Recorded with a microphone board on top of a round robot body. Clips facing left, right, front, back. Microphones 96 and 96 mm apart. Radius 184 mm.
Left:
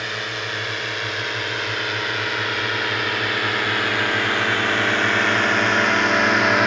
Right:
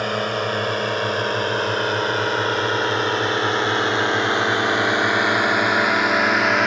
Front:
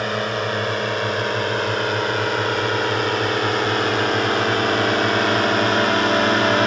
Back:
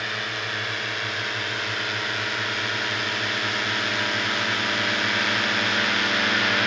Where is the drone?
50° right; by 6.7 s straight ahead.